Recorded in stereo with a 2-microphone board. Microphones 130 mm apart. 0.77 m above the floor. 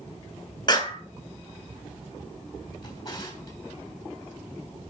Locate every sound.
0.7 s a clap: 30° left (ahead or behind), 4.5 m
2.8 s a drawer: 30° left (ahead or behind), 4 m